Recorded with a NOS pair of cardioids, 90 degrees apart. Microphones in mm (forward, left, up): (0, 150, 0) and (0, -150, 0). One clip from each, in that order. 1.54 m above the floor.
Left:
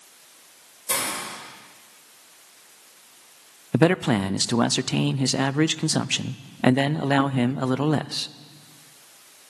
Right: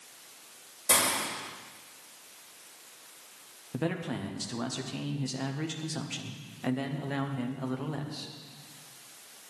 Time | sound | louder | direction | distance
0.9 | a hiss | even | 15° right | 3.5 m
3.7 | a man speaking | left 14 dB | 65° left | 0.5 m